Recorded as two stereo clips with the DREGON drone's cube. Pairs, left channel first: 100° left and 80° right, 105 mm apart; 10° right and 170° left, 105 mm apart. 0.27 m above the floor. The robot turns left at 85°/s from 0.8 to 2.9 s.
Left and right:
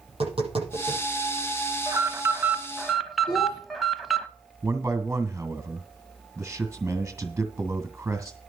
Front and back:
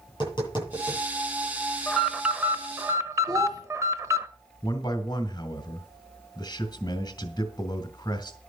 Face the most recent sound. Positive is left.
turn(degrees=-15)